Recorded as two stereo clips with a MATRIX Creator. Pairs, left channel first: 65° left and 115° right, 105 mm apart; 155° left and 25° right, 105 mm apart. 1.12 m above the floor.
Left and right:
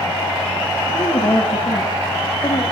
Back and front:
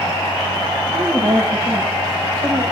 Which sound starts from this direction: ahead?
A woman speaking, at 0.9 s.